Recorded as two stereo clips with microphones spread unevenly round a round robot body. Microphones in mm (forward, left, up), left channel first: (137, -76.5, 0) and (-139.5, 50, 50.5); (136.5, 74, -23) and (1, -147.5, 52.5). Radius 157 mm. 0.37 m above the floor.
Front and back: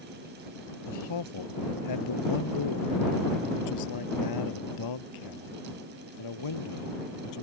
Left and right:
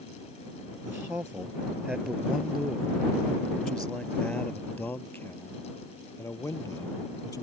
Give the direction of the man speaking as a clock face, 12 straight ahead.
1 o'clock.